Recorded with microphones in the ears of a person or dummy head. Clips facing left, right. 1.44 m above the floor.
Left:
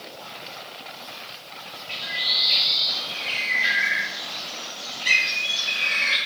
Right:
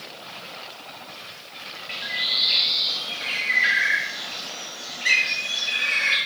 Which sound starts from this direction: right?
A bird, at 1.9 s.